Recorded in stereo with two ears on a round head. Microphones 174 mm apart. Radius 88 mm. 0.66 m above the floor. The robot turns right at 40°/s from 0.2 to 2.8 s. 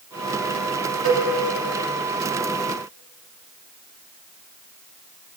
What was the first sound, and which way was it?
A cowbell, 80° right.